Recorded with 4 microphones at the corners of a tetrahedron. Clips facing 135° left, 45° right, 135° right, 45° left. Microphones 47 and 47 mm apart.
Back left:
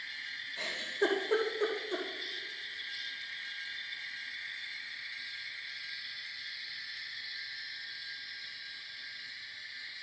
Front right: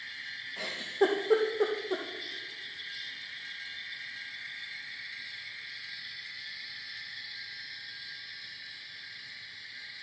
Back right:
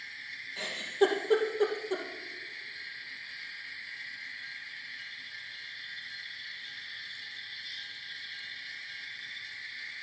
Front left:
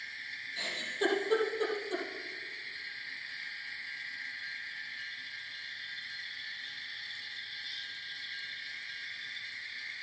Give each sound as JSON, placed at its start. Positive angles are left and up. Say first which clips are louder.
{"t": 0.6, "sound": "a giggle", "louder": "front right 4 dB, back right 6 dB", "azimuth_deg": -75, "distance_m": 2.5}